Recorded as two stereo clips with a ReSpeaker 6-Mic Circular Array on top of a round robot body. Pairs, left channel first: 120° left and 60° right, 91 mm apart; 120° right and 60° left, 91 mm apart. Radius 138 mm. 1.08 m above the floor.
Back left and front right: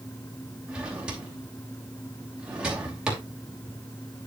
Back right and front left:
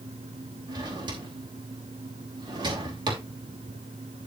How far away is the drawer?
About 3 m.